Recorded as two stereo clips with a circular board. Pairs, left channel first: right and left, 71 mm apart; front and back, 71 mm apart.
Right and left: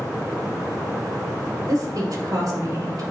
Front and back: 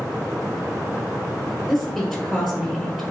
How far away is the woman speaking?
About 1.7 m.